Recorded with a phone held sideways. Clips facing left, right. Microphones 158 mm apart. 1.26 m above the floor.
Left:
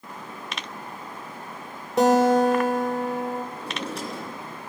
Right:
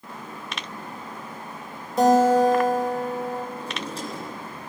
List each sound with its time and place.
2.0 s a guitar: 75° left (ahead or behind), 3 m
3.5 s a drawer: 75° left (ahead or behind), 5.5 m